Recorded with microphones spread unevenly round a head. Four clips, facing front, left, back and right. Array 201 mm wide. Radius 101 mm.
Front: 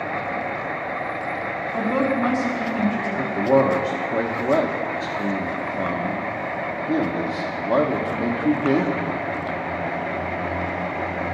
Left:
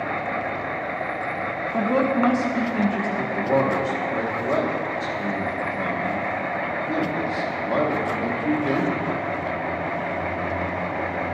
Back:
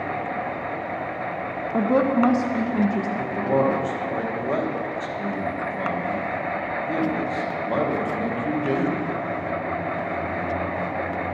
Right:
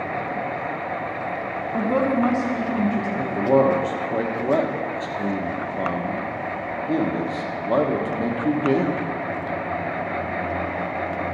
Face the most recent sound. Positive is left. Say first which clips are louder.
# right 4 dB, front 5 dB
turn(degrees=-40)